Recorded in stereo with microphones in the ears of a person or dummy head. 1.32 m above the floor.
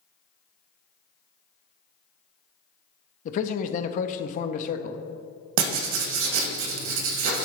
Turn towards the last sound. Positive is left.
turn(degrees=-85)